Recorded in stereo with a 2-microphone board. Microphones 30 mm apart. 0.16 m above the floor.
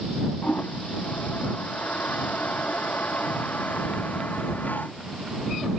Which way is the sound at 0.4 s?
70° left (ahead or behind).